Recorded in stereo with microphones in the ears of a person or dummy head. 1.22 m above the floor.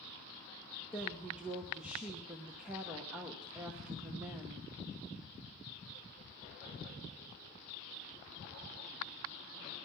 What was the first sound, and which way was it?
A woman speaking, 15° right (ahead or behind).